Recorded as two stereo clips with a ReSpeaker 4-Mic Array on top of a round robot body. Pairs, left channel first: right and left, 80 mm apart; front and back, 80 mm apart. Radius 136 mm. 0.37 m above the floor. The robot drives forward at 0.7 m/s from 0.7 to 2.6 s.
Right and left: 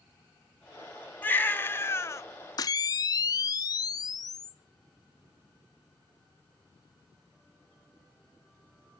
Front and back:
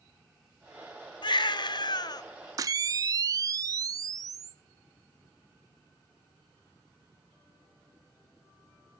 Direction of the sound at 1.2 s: 20° right.